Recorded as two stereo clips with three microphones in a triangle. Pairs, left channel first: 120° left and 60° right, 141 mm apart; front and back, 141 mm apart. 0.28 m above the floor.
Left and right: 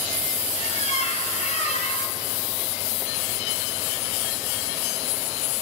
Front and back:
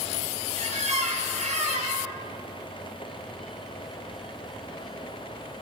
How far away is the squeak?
About 2 m.